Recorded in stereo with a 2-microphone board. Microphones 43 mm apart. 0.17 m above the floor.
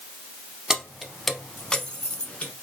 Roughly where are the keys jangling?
Centre.